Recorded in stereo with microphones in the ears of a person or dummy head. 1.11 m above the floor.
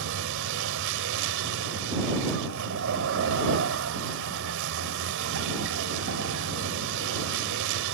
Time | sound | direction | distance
0.0 | a vehicle | 75° right (ahead or behind) | ?